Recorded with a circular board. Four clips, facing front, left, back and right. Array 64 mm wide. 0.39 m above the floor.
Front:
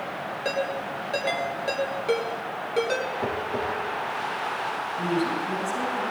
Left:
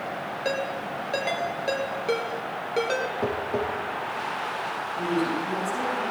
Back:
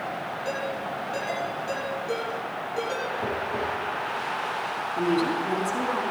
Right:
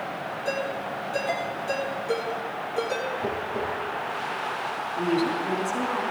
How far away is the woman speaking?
About 3.5 m.